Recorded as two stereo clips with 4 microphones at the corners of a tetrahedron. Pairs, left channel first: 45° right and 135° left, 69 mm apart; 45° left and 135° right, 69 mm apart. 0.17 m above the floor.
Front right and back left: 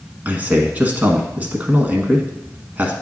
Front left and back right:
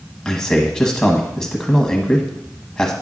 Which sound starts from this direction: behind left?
A man speaking, at 0.2 s.